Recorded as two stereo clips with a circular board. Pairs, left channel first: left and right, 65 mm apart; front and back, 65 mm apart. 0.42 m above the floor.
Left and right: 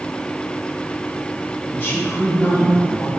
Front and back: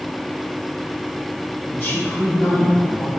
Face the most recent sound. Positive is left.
turn(degrees=45)